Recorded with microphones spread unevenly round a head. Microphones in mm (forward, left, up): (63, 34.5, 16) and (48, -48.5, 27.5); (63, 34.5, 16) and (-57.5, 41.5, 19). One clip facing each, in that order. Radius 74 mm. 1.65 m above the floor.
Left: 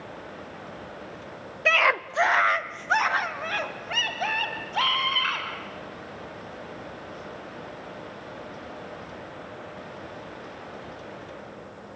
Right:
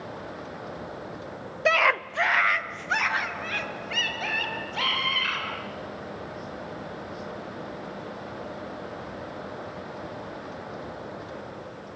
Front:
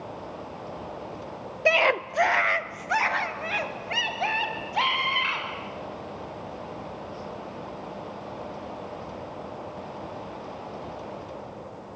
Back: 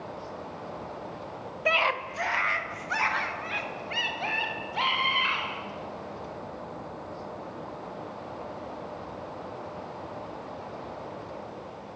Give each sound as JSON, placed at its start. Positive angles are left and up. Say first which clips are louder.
{"t": 1.6, "sound": "a scream", "louder": "even, front 5 dB", "azimuth_deg": -50, "distance_m": 0.7}